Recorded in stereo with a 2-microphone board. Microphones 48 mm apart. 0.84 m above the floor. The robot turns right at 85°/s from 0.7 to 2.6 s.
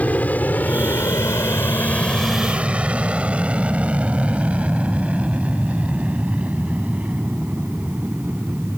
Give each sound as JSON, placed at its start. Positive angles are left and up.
{"t": 0.0, "sound": "an aircraft", "side_deg": 35}